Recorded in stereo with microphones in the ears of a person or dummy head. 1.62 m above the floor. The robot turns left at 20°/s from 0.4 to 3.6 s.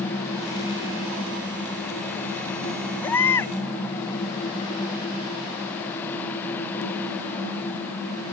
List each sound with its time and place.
3.0 s a baby crying: 15° left (ahead or behind); by 3.5 s 20° left (ahead or behind)